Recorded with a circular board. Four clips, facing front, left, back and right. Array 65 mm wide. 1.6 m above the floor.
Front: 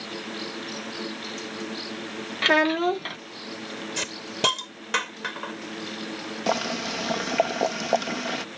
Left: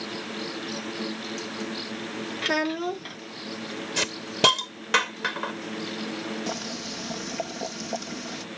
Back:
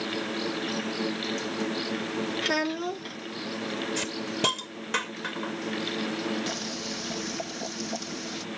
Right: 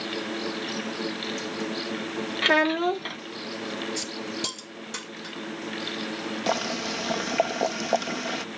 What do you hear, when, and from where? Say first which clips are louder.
2.4 s a child speaking: right 5 dB, front 11 dB; 30° right
4.0 s a hiss: left 7 dB, even; 75° left
6.5 s boiling: right 6 dB, front 8 dB; 30° right